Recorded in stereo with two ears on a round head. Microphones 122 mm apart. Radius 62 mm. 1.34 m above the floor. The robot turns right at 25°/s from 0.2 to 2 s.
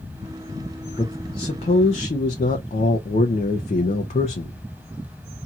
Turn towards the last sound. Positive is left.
turn(degrees=50)  # may be behind; listen again after turning